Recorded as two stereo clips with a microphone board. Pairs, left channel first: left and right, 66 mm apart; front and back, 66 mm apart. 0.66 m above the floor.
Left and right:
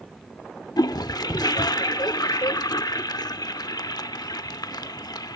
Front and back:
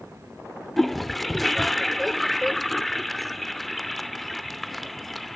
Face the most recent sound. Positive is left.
turn(degrees=90)